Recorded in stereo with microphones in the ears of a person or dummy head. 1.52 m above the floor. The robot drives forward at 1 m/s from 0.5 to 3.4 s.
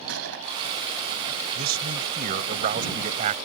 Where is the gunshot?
85° right.